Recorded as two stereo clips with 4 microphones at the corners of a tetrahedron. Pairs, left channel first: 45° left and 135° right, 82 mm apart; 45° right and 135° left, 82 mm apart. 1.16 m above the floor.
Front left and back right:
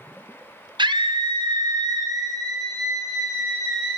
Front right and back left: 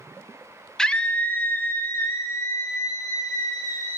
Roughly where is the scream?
Behind right.